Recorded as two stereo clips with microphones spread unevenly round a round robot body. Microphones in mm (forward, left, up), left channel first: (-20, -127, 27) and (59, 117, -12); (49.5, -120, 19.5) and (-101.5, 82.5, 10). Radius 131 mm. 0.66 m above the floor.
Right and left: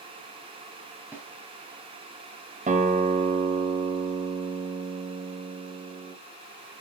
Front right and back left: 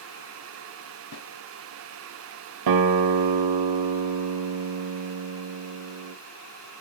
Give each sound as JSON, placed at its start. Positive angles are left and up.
{"t": 1.1, "sound": "a snare drum", "azimuth_deg": -10, "distance_m": 3.0}
{"t": 2.7, "sound": "a guitar", "azimuth_deg": 140, "distance_m": 1.1}